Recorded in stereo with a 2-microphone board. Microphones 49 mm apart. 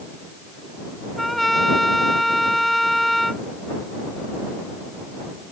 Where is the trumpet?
5° left (ahead or behind).